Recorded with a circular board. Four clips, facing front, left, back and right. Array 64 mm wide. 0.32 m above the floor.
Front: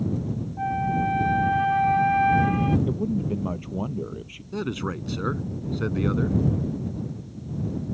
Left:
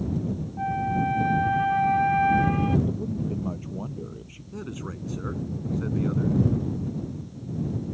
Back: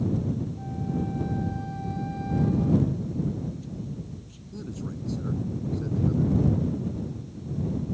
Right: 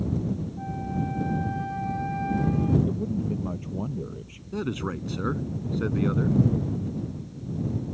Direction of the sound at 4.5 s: 30° right.